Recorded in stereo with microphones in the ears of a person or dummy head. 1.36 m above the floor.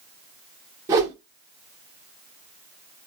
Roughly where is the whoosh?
Right.